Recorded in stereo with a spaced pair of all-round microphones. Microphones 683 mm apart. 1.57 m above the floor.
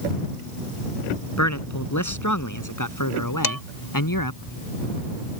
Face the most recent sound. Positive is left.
turn(degrees=30)  # may be behind; listen again after turning